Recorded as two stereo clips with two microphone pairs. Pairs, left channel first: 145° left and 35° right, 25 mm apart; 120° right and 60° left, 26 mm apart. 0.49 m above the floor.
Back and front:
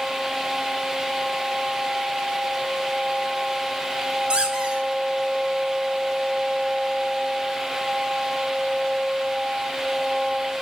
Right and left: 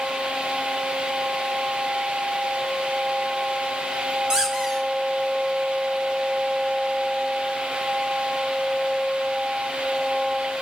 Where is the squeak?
10° left, 1.4 m.